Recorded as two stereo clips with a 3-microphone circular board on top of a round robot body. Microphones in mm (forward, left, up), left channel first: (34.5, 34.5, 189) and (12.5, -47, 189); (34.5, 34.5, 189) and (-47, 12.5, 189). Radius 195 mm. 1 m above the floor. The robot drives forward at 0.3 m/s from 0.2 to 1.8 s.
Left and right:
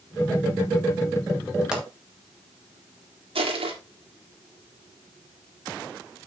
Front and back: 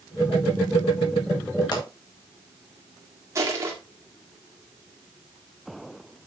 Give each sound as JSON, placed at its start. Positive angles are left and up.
{"t": 1.7, "sound": "a pop", "azimuth_deg": -25, "distance_m": 3.0}
{"t": 3.4, "sound": "crushing", "azimuth_deg": -110, "distance_m": 2.0}